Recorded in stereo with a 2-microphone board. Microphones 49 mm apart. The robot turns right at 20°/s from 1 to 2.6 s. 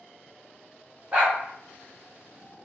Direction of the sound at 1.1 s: 35° right (ahead or behind).